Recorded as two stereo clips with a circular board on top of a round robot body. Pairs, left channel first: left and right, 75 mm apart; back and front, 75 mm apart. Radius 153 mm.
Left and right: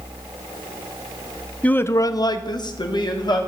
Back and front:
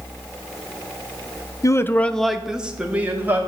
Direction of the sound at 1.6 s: 160° left.